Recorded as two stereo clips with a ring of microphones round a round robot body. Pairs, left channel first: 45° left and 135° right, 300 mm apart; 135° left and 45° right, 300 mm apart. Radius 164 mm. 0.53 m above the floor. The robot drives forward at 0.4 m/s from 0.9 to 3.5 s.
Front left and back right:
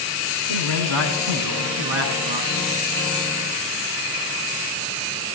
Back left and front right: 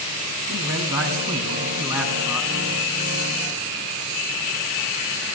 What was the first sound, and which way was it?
A man speaking, 125° right.